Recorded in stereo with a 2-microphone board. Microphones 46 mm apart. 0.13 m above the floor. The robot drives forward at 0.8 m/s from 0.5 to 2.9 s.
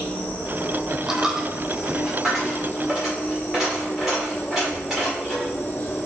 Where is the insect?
30° left (ahead or behind), 1.4 m; by 6.1 s 40° left (ahead or behind), 1.0 m.